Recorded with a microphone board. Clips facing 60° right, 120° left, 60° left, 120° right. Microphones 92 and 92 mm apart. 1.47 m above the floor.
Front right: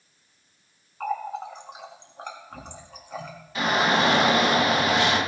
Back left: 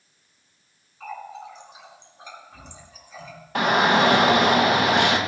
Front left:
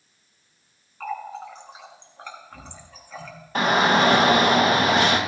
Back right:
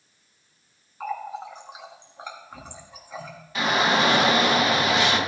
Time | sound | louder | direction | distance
1.0 | a running tap | front right 7 dB, even | 45° right | 1.6 m
3.5 | a shout | back left 4 dB, front left 3 dB | 100° left | 1.9 m